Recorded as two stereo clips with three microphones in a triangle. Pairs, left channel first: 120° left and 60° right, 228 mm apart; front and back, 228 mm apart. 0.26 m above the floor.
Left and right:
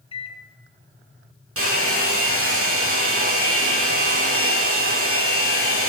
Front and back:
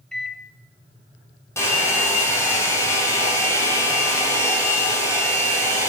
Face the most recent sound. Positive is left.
turn(degrees=-80)